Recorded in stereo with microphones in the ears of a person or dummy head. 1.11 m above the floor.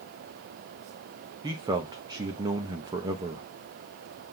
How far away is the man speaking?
About 0.7 m.